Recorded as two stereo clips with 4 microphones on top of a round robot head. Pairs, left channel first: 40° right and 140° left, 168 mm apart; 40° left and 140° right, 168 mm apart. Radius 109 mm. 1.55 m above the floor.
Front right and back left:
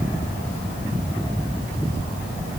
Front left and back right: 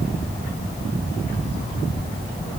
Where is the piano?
I don't hear a piano.